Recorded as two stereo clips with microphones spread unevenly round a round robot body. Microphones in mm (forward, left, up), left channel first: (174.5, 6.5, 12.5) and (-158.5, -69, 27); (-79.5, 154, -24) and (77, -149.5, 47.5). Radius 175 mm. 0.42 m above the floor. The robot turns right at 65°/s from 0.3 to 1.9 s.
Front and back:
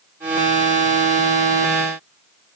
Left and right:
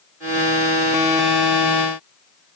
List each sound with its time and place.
Only background noise.